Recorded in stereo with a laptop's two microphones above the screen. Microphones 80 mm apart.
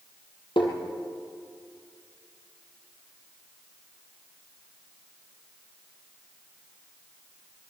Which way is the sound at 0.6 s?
80° left.